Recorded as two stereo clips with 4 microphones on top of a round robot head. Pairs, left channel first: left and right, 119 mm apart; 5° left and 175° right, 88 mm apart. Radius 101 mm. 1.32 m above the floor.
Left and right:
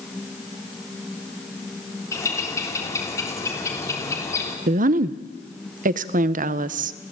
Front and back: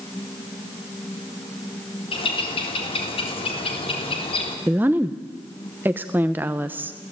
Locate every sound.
2.1 s a bird: 25° left, 3.5 m
4.7 s a woman speaking: 100° right, 0.8 m